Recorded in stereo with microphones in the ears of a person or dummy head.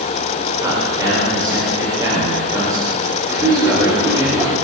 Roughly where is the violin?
No violin in this recording.